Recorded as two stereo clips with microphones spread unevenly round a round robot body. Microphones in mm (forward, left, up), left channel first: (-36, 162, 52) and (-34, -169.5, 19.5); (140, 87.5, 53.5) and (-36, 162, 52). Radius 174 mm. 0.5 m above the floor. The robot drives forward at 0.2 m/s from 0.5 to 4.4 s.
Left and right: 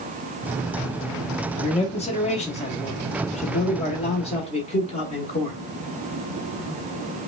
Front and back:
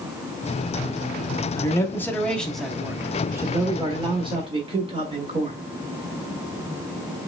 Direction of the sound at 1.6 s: 30° left.